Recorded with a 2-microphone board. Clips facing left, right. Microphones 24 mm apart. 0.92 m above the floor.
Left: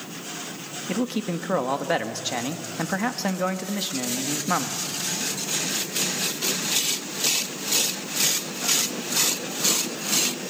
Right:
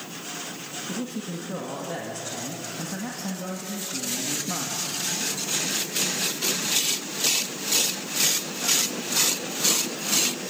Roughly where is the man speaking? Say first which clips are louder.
Left 7 dB; left.